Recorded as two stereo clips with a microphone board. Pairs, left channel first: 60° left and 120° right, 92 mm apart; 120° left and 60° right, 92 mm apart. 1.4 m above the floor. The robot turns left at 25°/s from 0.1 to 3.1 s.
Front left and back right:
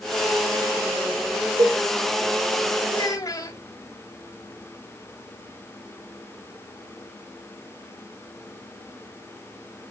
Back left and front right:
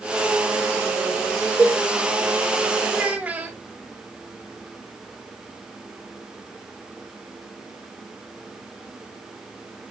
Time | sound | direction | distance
1.6 | a cowbell | 135° right | 2.5 m
2.9 | a child speaking | 20° left | 2.5 m